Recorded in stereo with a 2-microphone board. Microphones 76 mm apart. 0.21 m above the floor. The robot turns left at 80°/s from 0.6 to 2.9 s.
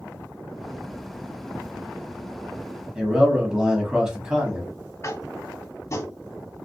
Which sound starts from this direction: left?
Tapping, at 5.0 s.